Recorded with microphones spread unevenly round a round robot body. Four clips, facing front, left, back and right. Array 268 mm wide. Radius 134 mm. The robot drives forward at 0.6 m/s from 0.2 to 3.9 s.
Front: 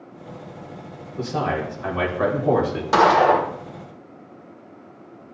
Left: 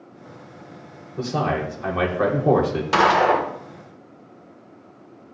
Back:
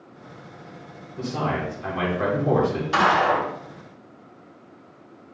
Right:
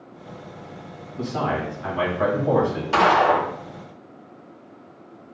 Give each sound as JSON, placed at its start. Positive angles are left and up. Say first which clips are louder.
{"t": 1.2, "sound": "a man speaking", "louder": "left 2 dB, front 2 dB", "azimuth_deg": 70, "distance_m": 3.0}
{"t": 2.9, "sound": "a gunshot", "louder": "even, front 5 dB", "azimuth_deg": 25, "distance_m": 1.7}